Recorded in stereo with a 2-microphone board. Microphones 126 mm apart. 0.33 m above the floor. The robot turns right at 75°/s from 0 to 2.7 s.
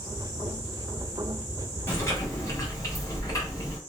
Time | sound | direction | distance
1.9 | chewing | 15° left (ahead or behind) | 1.2 m